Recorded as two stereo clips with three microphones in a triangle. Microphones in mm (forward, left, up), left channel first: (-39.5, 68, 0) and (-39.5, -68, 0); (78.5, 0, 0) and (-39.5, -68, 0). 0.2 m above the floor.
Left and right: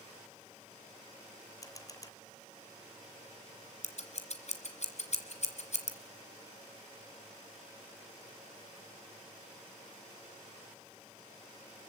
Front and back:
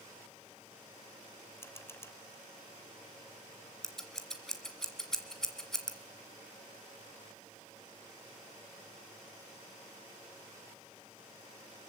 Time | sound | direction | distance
1.6 | a camera shutter | 75° left | 1.6 m
3.8 | scissors | 115° left | 2.5 m